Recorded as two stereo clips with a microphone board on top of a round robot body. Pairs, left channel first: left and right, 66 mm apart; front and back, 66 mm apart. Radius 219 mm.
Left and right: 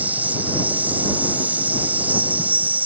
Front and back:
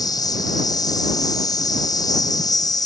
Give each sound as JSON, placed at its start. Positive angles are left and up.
{"t": 0.0, "sound": "an insect", "azimuth_deg": -20}